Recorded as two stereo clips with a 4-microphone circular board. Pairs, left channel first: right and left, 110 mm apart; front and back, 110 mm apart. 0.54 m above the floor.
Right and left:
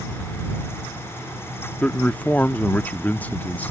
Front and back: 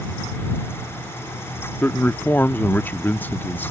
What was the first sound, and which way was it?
A man speaking, 40° right.